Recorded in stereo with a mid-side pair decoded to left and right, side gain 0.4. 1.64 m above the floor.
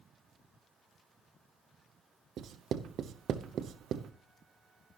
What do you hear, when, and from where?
2.4 s writing: 70° right, 0.8 m